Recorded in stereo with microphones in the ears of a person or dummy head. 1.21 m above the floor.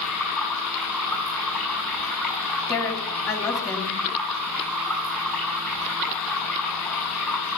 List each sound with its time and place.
0.0 s running water: centre (ahead or behind), 5.5 m
2.7 s a woman speaking: 25° left (ahead or behind), 2.5 m